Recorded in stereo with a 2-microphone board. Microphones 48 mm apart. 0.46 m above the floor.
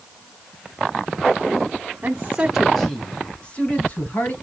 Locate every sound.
2.0 s a man speaking: 40° right (ahead or behind), 1.4 m; by 4.3 s 35° left (ahead or behind), 3.5 m